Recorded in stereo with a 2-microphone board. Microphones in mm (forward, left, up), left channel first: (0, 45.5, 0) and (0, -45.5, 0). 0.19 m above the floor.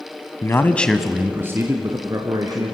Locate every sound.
0.4 s a man speaking: 35° left (ahead or behind), 1.3 m; by 2.7 s 45° right (ahead or behind), 3 m